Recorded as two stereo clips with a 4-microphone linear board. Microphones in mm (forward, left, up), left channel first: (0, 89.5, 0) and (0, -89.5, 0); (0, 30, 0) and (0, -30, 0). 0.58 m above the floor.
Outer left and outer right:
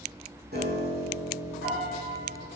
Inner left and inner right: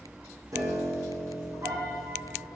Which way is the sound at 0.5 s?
65° right (ahead or behind).